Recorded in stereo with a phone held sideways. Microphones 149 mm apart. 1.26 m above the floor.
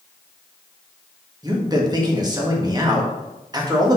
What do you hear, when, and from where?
1.4 s a man speaking: 25° right (ahead or behind), 1.8 m